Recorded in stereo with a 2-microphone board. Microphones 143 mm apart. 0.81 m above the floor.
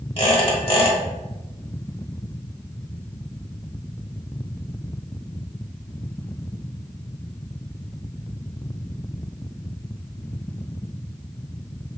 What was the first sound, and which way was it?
A squeak, 40° left (ahead or behind).